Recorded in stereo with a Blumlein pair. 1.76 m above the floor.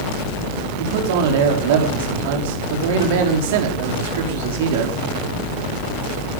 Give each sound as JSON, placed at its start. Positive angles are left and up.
{"t": 0.8, "sound": "a man speaking", "azimuth_deg": -55, "distance_m": 4.5}